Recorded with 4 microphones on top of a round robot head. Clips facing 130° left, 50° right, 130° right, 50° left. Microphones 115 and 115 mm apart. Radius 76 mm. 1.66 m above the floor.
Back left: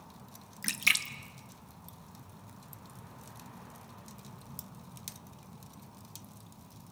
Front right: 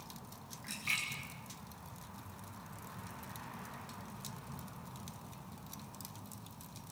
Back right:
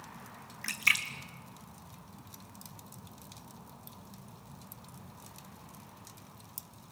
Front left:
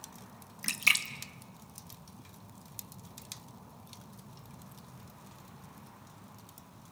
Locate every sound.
0.6 s a splash: 115° left, 1.1 m